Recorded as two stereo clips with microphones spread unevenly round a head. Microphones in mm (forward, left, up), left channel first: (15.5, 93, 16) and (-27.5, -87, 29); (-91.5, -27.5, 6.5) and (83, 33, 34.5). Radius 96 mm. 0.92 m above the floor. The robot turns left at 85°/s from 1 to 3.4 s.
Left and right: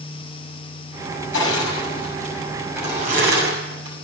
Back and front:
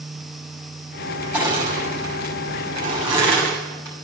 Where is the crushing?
95° left, 7 m; by 4.0 s 80° right, 7 m.